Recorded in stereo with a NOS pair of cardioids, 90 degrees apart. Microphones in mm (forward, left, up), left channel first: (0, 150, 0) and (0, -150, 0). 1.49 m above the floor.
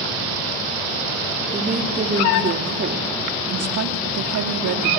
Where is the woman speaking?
25° right, 3 m; by 4.9 s 75° right, 2.5 m.